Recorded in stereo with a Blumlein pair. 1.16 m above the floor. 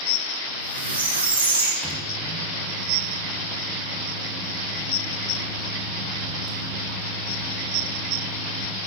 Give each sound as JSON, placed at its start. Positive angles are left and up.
{"t": 0.5, "sound": "a squeak", "azimuth_deg": -70, "distance_m": 0.7}
{"t": 1.8, "sound": "a microwave", "azimuth_deg": -5, "distance_m": 0.9}